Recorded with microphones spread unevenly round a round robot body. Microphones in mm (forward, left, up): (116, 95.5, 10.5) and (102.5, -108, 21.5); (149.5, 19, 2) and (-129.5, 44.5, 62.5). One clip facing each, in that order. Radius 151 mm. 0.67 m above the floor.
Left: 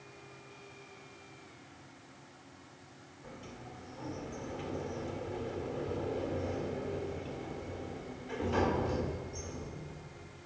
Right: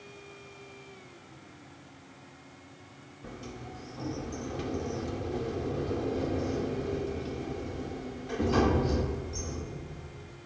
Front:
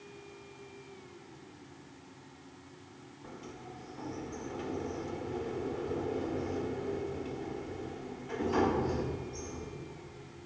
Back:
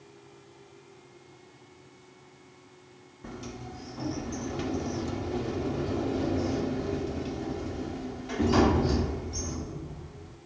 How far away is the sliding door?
About 1.6 m.